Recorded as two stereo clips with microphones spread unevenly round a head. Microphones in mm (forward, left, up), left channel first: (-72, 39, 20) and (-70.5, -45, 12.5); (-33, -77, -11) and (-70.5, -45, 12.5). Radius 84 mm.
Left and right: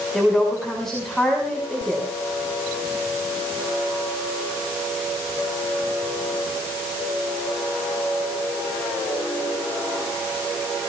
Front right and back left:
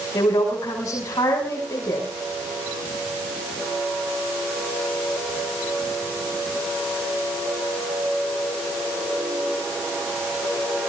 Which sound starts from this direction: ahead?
A woman speaking, at 0.1 s.